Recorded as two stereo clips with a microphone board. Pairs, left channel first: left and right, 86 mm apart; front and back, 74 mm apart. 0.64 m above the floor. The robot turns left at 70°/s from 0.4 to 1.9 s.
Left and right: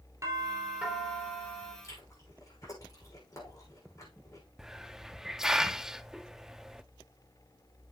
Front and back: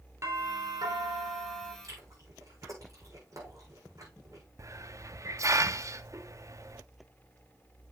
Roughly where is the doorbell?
Behind right.